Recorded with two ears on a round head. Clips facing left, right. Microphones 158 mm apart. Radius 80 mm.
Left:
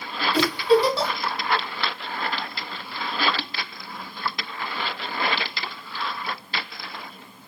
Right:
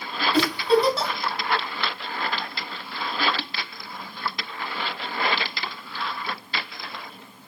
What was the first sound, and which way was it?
A giggle, centre (ahead or behind).